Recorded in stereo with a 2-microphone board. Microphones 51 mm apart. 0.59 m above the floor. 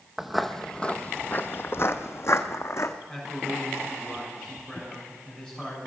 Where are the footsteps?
5° right (ahead or behind), 0.8 m; by 3.0 s 70° left (ahead or behind), 1.5 m.